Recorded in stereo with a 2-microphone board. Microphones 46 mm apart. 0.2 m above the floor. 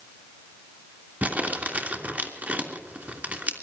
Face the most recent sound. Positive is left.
turn(degrees=-35)  # may be behind; listen again after turning